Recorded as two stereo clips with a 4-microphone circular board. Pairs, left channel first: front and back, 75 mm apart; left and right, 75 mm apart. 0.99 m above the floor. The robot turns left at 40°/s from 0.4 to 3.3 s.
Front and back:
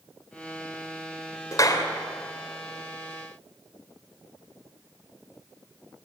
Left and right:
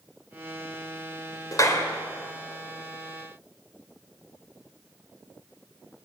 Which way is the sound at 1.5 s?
45° left.